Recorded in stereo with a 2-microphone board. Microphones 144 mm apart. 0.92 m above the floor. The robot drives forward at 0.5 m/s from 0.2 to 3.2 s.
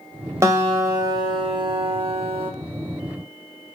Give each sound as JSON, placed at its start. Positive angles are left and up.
{"t": 0.4, "sound": "a guitar", "side_deg": -20, "distance_m": 1.1}